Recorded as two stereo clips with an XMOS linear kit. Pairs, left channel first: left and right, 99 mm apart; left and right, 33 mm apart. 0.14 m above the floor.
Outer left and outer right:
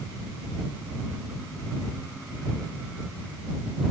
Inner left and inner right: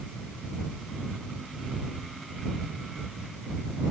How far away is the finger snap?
I don't hear a finger snap.